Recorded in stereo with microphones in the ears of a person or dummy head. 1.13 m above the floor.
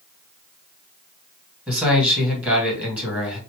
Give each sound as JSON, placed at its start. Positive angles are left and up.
{"t": 1.7, "sound": "a man speaking", "side_deg": -5, "distance_m": 2.0}